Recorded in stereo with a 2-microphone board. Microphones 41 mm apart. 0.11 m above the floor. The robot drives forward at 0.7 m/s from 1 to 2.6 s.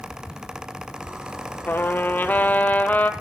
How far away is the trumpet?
About 1.2 m.